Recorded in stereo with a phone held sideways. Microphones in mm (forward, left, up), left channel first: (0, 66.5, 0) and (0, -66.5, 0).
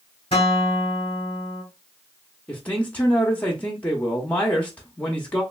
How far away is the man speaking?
About 0.6 m.